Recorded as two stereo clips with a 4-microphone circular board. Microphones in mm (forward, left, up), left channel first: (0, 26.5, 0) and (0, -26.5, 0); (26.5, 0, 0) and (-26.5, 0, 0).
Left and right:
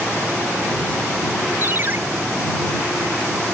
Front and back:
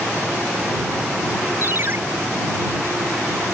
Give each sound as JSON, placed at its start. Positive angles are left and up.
{"t": 1.6, "sound": "a ringtone", "azimuth_deg": -135}